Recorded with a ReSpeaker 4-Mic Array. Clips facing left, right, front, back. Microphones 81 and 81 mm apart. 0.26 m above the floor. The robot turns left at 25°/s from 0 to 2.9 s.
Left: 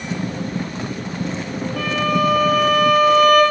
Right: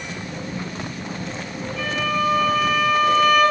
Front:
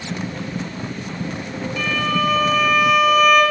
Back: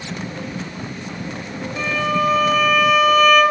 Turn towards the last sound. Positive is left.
turn(degrees=90)